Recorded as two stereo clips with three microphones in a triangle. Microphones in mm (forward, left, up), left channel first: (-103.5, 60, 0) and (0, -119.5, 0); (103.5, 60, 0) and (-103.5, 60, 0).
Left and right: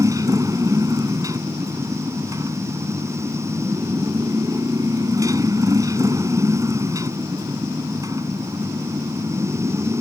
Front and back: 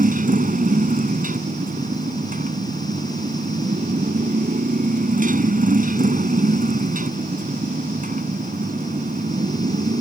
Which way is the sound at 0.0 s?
135° right.